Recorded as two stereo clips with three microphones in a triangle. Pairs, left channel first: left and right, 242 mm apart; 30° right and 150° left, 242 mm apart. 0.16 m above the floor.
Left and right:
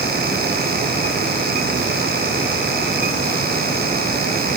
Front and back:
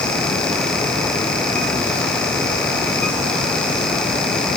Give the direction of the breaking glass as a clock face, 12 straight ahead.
No breaking glass in this recording.